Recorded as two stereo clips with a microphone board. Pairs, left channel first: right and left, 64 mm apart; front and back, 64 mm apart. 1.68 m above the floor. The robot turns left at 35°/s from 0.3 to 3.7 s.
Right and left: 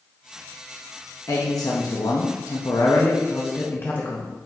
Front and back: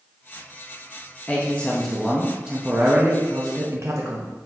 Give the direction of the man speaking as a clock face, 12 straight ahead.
2 o'clock.